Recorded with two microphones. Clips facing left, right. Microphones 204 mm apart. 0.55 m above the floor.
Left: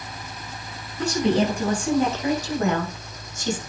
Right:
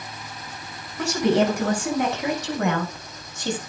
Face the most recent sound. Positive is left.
turn(degrees=-60)  # may be behind; listen again after turning